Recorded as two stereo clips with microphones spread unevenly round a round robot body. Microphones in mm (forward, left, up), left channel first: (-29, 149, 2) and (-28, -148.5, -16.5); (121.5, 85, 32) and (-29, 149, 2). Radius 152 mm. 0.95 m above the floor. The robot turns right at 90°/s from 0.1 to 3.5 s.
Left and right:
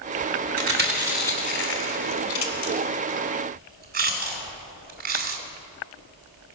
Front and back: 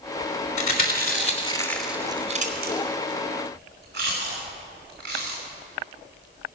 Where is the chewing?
55° right, 1.7 m; by 5.4 s 150° right, 1.7 m.